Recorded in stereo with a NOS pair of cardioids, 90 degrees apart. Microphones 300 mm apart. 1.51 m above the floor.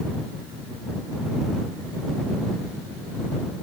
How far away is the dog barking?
No dog barking in this recording.